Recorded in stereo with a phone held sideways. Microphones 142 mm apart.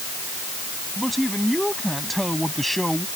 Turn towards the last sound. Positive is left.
turn(degrees=0)  # may be behind; listen again after turning